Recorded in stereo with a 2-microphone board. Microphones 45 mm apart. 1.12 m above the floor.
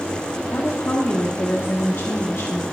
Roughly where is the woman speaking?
Left.